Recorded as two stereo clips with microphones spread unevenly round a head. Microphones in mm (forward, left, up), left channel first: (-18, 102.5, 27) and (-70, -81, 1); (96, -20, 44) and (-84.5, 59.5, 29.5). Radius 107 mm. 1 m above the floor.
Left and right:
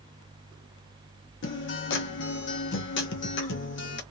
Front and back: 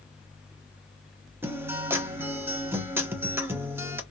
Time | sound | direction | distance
1.4 | a guitar | 80° left | 0.8 m